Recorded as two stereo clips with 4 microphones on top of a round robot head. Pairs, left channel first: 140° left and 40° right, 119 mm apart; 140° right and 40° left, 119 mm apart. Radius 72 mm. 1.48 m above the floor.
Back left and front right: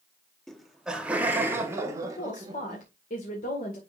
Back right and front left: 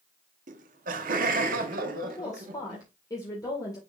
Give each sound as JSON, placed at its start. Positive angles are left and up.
{"t": 0.5, "sound": "laughter", "azimuth_deg": 55, "distance_m": 1.2}
{"t": 2.0, "sound": "a woman speaking", "azimuth_deg": 155, "distance_m": 2.0}